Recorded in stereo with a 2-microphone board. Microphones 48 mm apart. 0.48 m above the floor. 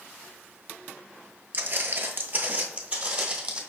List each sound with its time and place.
1.5 s footsteps: 40° right (ahead or behind), 0.5 m; by 3.6 s 20° right (ahead or behind), 1.2 m